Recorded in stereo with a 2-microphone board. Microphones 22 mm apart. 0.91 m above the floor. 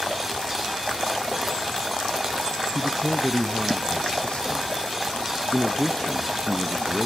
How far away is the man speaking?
About 0.9 m.